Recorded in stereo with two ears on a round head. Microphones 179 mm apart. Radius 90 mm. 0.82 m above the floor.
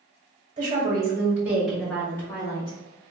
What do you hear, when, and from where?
0.6 s a woman speaking: 25° right (ahead or behind), 1.9 m; by 2.8 s 25° left (ahead or behind), 1.8 m